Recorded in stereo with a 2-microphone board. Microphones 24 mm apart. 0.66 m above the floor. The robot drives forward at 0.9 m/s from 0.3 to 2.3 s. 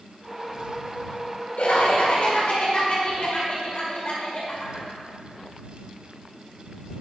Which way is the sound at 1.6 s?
70° left (ahead or behind).